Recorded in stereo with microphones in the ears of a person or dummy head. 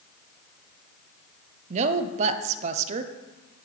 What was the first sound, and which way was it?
A woman speaking, 45° right (ahead or behind).